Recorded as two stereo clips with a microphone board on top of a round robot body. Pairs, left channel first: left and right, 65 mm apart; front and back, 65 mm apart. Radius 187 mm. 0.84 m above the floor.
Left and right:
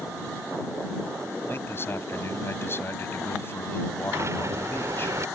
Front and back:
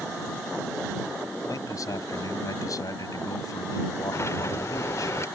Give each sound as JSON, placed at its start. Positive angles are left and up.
{"t": 1.5, "sound": "a man speaking", "azimuth_deg": 35}
{"t": 4.1, "sound": "a sliding door", "azimuth_deg": -45}